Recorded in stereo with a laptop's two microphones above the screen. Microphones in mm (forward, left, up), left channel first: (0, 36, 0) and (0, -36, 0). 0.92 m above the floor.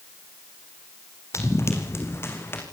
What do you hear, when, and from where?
1.3 s running footsteps: 45° left (ahead or behind), 3 m; by 2.6 s 35° left (ahead or behind), 4.5 m